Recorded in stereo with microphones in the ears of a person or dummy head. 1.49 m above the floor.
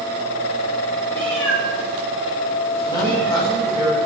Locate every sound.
1.1 s a cat meowing: 10° left (ahead or behind), 7.5 m; by 3.8 s 5° left (ahead or behind), 9.5 m
2.9 s a man speaking: 25° left (ahead or behind), 8.5 m